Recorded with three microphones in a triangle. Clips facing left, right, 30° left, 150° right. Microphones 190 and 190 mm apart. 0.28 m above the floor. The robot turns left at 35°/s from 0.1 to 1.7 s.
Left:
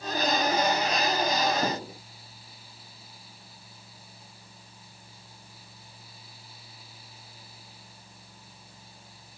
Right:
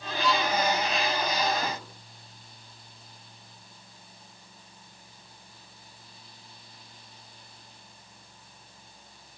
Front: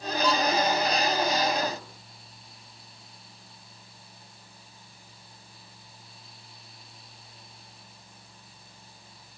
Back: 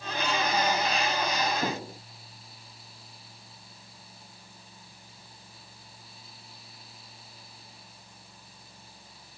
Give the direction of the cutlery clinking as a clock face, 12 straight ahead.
No cutlery clinking in this recording.